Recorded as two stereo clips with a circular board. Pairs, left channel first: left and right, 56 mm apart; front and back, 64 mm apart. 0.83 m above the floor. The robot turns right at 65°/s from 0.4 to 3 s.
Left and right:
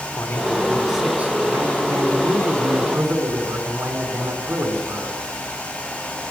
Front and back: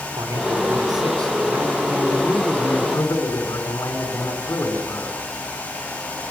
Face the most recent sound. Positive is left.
turn(degrees=-45)